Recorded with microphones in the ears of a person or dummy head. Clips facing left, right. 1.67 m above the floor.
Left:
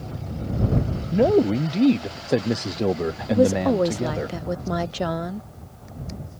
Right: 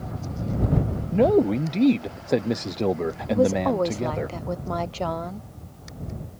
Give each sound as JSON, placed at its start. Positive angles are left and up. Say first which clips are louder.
{"t": 1.1, "sound": "a man speaking", "louder": "left 1 dB", "side_deg": 5}
{"t": 3.3, "sound": "a woman speaking", "louder": "left 3 dB", "side_deg": 20}